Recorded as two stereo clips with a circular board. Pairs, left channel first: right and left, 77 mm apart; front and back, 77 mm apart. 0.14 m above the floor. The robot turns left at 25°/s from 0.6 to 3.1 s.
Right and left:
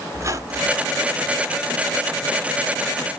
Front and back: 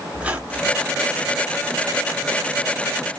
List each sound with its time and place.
0.1 s a squeak: 110° left, 1.1 m; by 0.9 s 105° left, 1.1 m